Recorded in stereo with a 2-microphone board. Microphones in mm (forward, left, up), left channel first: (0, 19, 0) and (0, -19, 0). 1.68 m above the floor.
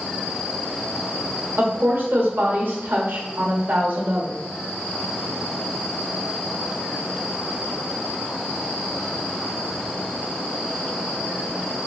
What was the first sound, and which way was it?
A woman speaking, 70° right (ahead or behind).